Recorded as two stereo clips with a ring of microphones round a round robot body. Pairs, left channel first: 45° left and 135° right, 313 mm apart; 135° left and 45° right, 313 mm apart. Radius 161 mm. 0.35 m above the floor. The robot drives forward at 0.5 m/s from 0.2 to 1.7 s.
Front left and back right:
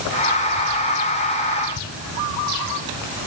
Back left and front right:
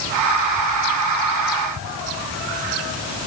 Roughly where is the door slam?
I don't hear a door slam.